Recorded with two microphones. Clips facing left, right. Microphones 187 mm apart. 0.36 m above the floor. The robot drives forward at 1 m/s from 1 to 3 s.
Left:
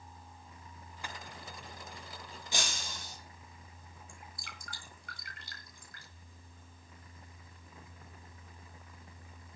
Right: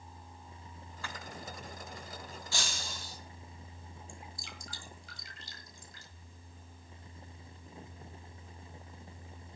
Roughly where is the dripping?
Left.